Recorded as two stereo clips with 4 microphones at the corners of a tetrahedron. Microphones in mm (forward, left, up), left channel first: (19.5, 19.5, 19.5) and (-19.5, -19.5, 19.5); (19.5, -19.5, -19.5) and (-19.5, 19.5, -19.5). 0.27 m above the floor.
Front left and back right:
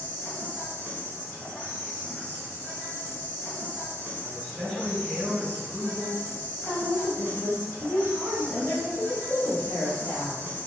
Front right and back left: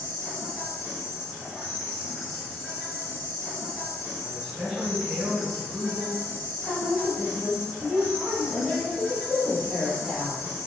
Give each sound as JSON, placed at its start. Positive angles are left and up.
{"t": 0.0, "sound": "an insect", "azimuth_deg": 50, "distance_m": 1.0}
{"t": 4.2, "sound": "a man speaking", "azimuth_deg": 150, "distance_m": 1.4}
{"t": 6.6, "sound": "a woman speaking", "azimuth_deg": 65, "distance_m": 1.6}